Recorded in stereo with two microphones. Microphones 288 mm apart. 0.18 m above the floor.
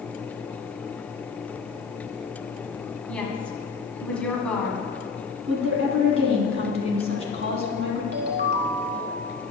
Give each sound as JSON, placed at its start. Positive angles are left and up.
{"t": 3.1, "sound": "a woman speaking", "side_deg": 5, "distance_m": 1.5}
{"t": 5.5, "sound": "a woman speaking", "side_deg": -45, "distance_m": 1.4}
{"t": 8.1, "sound": "a ringtone", "side_deg": -35, "distance_m": 1.0}